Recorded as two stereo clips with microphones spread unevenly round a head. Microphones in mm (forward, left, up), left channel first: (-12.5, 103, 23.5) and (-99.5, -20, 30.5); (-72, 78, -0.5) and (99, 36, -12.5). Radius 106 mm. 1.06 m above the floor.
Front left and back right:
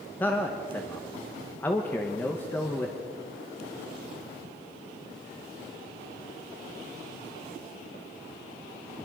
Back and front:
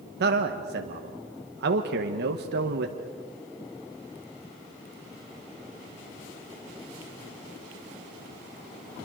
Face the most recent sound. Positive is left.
turn(degrees=-20)